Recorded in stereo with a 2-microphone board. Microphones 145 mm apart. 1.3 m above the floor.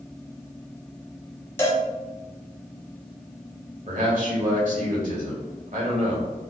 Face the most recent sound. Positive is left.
turn(degrees=-60)  # may be behind; listen again after turning